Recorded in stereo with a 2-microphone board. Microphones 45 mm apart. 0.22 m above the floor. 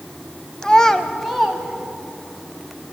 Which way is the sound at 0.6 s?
15° left (ahead or behind).